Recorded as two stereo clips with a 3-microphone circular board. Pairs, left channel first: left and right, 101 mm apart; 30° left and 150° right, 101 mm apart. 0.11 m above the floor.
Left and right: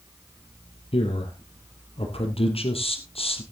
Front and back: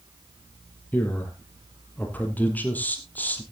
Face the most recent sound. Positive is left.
turn(degrees=105)